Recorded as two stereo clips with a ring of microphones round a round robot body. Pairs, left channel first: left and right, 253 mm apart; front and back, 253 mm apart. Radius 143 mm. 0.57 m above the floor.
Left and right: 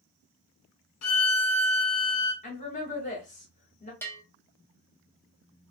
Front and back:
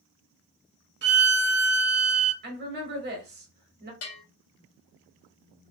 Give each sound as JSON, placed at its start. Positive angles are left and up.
{"t": 1.0, "sound": "a violin", "azimuth_deg": 130, "distance_m": 0.9}
{"t": 2.4, "sound": "a woman speaking", "azimuth_deg": 145, "distance_m": 1.8}
{"t": 4.0, "sound": "a bell", "azimuth_deg": 10, "distance_m": 1.6}